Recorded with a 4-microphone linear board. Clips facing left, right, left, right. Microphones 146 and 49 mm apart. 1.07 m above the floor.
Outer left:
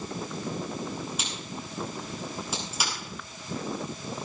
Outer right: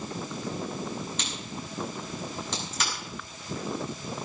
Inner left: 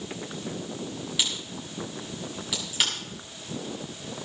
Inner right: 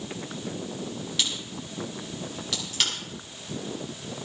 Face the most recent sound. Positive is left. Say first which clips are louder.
# even, even
turn(degrees=10)  # may be behind; listen again after turning